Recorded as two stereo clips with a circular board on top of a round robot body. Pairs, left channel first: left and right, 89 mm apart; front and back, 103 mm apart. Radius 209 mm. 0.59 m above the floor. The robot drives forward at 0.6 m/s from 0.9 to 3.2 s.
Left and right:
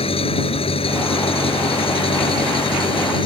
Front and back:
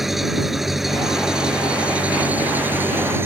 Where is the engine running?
90° left; by 3.3 s 110° left.